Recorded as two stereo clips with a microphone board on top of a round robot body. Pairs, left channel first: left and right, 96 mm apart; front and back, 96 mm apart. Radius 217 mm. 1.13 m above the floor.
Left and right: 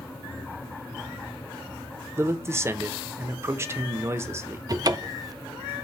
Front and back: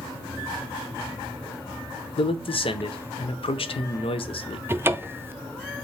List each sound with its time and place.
2.2 s a man speaking: 25° right, 0.6 m
4.7 s a cupboard door: 120° right, 0.6 m